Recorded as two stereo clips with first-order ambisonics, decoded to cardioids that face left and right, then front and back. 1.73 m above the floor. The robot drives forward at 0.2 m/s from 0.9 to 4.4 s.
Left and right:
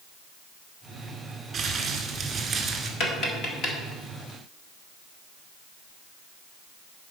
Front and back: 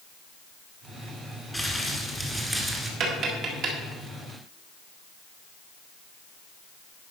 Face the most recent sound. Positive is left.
turn(degrees=145)